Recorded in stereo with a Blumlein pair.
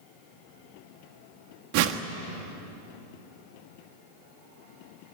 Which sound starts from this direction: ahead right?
A whoosh, at 1.7 s.